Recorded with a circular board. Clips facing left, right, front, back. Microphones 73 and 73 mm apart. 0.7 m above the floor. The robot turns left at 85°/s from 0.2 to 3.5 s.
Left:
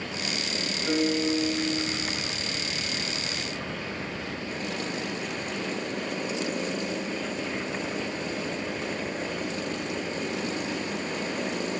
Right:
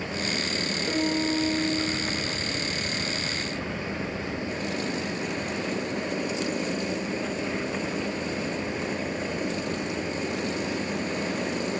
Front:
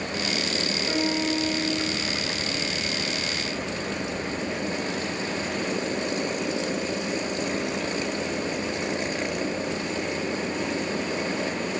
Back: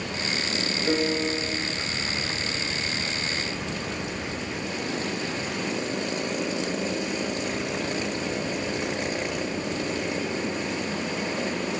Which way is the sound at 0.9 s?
160° left.